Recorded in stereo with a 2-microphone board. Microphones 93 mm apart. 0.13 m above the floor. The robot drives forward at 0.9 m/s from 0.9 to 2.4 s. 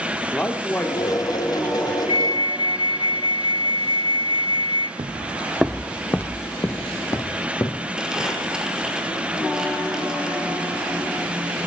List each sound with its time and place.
0.3 s a man speaking: 20° left (ahead or behind), 3.5 m; by 2.0 s 15° left (ahead or behind), 4 m
2.1 s a flute: 65° left (ahead or behind), 0.5 m
5.0 s footsteps: 60° right (ahead or behind), 0.8 m; by 7.9 s 45° left (ahead or behind), 3 m
8.0 s crumpling: 5° right (ahead or behind), 6 m